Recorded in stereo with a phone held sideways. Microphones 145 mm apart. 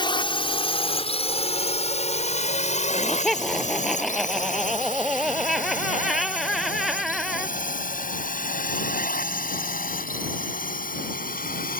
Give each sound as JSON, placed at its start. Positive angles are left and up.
{"t": 0.0, "sound": "a drone", "side_deg": 35}
{"t": 2.9, "sound": "laughter", "side_deg": 0}